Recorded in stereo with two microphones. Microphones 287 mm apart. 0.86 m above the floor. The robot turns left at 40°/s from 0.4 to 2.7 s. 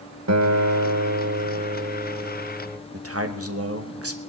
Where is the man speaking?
50° right (ahead or behind), 1.3 m.